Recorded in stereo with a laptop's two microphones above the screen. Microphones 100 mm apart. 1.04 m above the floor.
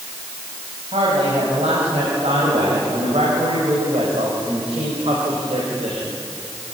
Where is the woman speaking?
85° right, 6 m; by 6.2 s 75° right (ahead or behind), 4 m.